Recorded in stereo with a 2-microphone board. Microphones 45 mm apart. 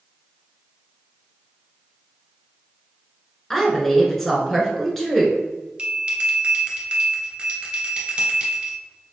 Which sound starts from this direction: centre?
A woman speaking, at 3.5 s.